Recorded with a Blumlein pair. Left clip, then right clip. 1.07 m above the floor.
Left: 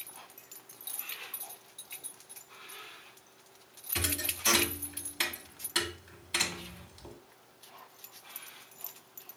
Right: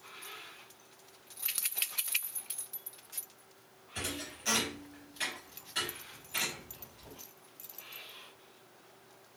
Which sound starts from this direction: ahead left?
A thud, at 4.0 s.